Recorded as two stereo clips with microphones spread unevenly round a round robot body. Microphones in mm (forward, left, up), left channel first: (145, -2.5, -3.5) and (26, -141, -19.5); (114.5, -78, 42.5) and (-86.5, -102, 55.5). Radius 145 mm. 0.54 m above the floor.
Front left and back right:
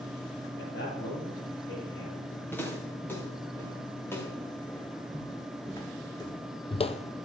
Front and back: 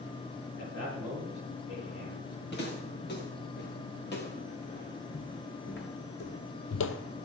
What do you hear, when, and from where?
0.6 s a man speaking: 45° left, 7.5 m
2.5 s footsteps: 30° right, 6.5 m; by 7.3 s 30° left, 0.7 m